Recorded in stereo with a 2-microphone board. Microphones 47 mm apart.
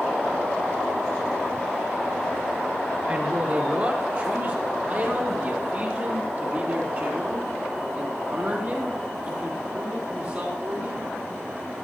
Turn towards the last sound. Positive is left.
turn(degrees=-40)  # may be behind; listen again after turning